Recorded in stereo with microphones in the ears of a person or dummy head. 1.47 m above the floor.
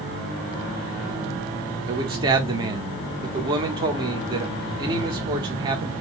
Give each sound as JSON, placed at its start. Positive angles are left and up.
{"t": 1.9, "sound": "a man speaking", "side_deg": -25, "distance_m": 0.7}